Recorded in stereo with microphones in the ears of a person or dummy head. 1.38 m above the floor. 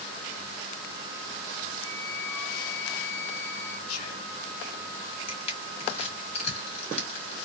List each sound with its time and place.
1.8 s a flute: 30° right (ahead or behind), 1.6 m
3.9 s whispering: 80° left, 0.7 m
5.3 s crushing: 30° left (ahead or behind), 1.3 m